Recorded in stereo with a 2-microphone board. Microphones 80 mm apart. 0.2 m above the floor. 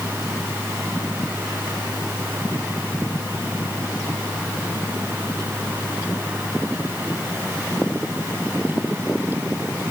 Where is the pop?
No pop in this recording.